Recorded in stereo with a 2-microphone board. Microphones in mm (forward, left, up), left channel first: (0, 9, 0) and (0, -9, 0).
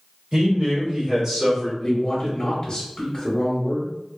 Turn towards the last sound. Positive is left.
turn(degrees=25)  # may be behind; listen again after turning